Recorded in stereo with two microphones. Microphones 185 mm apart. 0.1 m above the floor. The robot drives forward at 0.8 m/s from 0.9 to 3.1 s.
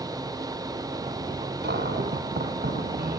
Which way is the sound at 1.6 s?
65° right (ahead or behind).